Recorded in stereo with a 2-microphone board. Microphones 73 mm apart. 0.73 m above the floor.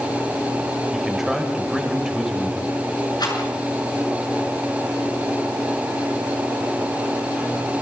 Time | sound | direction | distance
0.9 | a man speaking | 5° right (ahead or behind) | 4 m
3.2 | a rattle | 70° left (ahead or behind) | 6.5 m